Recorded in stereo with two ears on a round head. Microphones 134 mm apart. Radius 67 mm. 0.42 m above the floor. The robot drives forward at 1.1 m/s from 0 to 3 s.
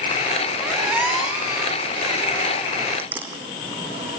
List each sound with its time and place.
0.6 s a squeak: 5° right (ahead or behind), 5.5 m; by 3.3 s 10° right (ahead or behind), 3 m